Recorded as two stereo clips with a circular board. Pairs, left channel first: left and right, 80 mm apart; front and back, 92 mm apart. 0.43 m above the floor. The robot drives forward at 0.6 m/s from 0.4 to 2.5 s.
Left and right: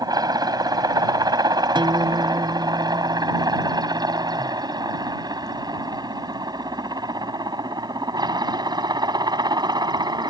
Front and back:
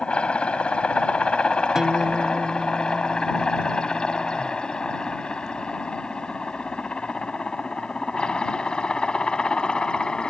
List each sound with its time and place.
0.0 s a helicopter: 75° right; by 10.3 s 80° right
1.8 s a guitar: 95° right; by 4.6 s 100° right